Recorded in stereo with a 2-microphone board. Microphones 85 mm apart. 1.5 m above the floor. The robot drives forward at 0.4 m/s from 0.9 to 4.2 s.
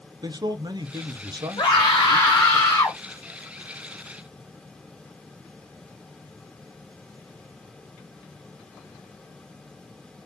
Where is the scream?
65° left (ahead or behind), 0.7 m; by 3.0 s 40° left (ahead or behind), 1.1 m.